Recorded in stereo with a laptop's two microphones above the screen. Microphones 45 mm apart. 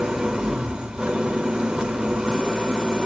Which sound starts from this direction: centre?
An engine running, at 0.0 s.